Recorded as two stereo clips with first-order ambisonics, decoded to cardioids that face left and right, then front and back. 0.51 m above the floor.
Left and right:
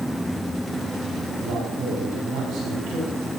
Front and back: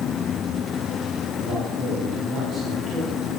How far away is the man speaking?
About 5 m.